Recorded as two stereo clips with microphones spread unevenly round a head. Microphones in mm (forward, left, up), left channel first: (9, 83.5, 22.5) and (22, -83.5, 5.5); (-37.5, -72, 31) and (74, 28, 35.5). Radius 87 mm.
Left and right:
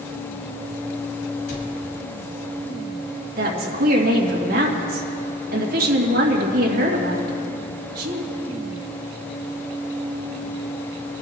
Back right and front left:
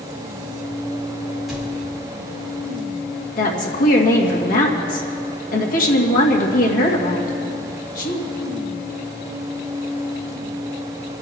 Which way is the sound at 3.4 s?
120° right.